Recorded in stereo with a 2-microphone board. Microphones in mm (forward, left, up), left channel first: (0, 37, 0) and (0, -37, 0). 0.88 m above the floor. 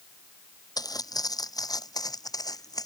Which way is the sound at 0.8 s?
60° left (ahead or behind).